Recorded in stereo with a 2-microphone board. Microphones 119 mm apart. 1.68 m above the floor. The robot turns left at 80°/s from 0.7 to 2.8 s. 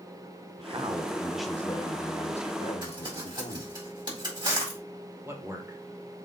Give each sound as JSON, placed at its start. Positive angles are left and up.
{"t": 0.6, "sound": "a man speaking", "azimuth_deg": -125, "distance_m": 1.1}
{"t": 2.8, "sound": "crumpling", "side_deg": -40, "distance_m": 3.5}
{"t": 5.2, "sound": "a man speaking", "side_deg": -20, "distance_m": 1.7}